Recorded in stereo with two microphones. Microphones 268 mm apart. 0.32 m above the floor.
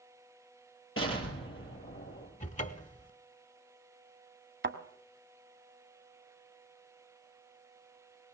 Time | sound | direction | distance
1.0 | an explosion | 55° left (ahead or behind) | 5.5 m
2.4 | a cupboard door | 30° left (ahead or behind) | 0.7 m
4.6 | a thud | 50° right (ahead or behind) | 1.1 m